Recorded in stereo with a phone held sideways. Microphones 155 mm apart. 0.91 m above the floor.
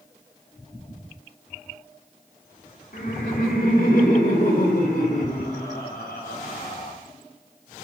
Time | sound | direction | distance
2.9 | laughter | 75° left (ahead or behind) | 2.5 m